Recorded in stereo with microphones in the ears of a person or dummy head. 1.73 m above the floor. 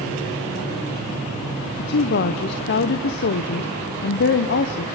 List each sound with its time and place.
1.8 s a woman speaking: 60° left (ahead or behind), 0.8 m